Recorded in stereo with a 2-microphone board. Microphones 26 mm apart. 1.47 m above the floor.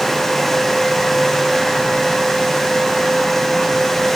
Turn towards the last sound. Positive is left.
No sound to turn to.